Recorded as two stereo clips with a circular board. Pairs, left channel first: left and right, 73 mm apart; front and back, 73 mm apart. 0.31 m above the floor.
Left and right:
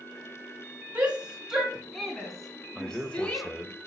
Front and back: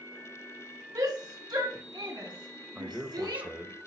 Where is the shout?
160° right, 2.5 m; by 3.5 s 160° left, 2.5 m.